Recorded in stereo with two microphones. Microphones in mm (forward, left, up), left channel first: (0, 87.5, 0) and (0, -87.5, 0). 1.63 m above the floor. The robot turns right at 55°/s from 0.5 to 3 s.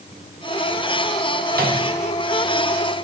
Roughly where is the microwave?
Right.